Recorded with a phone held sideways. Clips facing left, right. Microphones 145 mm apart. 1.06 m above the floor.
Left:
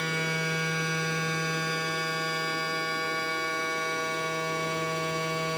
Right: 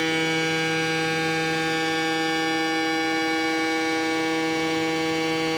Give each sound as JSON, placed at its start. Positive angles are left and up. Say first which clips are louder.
{"t": 0.0, "sound": "a machine running", "louder": "right 8 dB", "side_deg": -75, "distance_m": 1.3}